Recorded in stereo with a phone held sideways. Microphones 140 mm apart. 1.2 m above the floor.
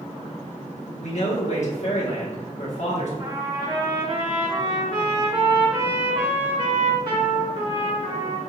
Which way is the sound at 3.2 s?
35° right (ahead or behind).